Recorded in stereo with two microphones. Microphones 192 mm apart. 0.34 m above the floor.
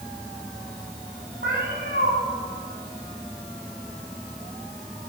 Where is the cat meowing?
70° right (ahead or behind), 4.5 m.